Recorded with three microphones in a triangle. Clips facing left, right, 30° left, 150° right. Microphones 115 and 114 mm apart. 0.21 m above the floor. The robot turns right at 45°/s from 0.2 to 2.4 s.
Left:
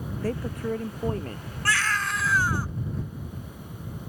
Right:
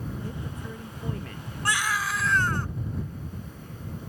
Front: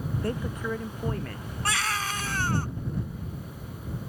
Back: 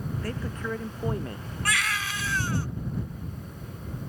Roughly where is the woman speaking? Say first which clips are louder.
Left 8 dB, front 4 dB; left.